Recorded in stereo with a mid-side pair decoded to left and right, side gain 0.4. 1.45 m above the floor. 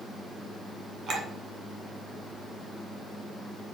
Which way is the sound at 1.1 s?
55° right.